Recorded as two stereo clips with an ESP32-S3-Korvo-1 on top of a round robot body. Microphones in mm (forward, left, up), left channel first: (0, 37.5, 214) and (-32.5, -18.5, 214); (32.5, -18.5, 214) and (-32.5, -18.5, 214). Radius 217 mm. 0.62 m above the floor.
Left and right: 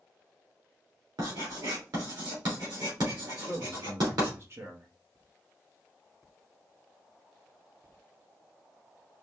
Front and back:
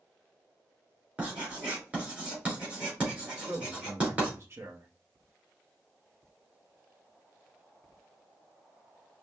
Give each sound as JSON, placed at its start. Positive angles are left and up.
{"t": 1.2, "sound": "writing", "azimuth_deg": -110, "distance_m": 3.0}
{"t": 3.4, "sound": "a man speaking", "azimuth_deg": -150, "distance_m": 1.5}